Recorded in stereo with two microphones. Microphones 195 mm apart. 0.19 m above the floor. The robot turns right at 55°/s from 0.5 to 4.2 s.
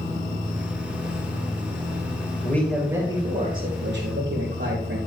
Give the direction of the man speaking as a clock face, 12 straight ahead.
6 o'clock.